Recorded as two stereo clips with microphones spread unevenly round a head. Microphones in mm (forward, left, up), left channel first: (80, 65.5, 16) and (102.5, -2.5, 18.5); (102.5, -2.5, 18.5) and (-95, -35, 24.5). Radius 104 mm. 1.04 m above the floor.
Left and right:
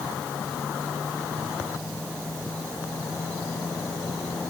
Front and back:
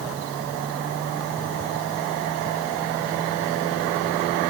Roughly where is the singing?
I don't hear singing.